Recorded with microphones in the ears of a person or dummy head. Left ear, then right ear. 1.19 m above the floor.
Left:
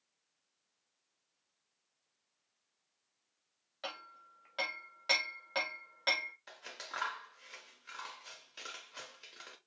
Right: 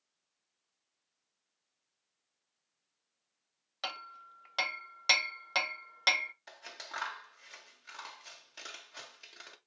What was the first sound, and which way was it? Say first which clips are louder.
Hammering: right 5 dB; 35° right (ahead or behind).